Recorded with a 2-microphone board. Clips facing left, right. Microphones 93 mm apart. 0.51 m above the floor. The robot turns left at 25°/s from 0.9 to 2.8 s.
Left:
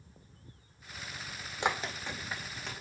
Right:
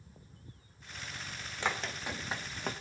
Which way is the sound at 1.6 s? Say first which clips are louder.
Left 3 dB; 20° left (ahead or behind).